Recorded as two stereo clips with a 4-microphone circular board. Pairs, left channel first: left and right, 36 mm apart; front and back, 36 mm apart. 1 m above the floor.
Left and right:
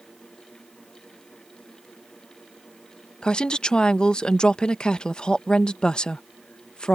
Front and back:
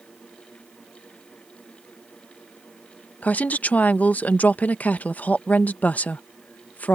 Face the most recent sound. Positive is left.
turn(degrees=30)